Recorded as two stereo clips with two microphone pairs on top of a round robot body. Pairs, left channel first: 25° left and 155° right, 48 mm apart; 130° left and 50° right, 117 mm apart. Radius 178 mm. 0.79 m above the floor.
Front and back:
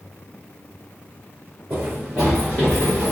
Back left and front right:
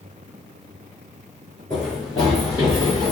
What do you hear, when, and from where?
1.7 s running footsteps: 155° right, 0.8 m; by 3.1 s 55° left, 1.0 m